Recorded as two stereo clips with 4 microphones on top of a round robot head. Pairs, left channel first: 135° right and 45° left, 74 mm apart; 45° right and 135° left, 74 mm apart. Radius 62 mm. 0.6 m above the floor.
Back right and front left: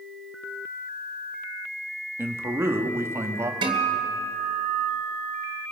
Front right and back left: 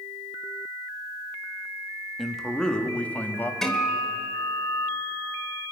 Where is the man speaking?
50° left, 1.3 m; by 3.5 s 10° left, 1.6 m.